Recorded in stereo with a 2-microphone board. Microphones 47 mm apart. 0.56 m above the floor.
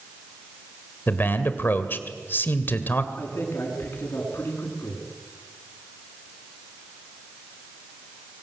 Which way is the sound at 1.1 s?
45° left (ahead or behind).